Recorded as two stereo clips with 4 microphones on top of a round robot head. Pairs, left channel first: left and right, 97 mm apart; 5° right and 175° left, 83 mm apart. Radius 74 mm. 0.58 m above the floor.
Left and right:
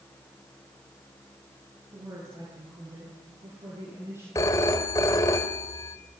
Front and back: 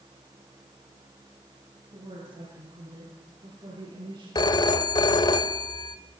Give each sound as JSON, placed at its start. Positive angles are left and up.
{"t": 1.9, "sound": "a woman speaking", "azimuth_deg": -140, "distance_m": 8.5}
{"t": 4.3, "sound": "a phone ringing", "azimuth_deg": 25, "distance_m": 1.2}